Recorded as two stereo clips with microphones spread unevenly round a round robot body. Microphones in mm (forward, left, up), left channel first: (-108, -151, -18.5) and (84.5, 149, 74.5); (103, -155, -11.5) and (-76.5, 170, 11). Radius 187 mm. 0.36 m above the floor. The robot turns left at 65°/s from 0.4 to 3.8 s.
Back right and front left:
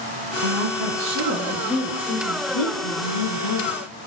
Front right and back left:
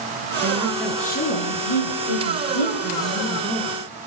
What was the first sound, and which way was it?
A woman speaking, 50° left.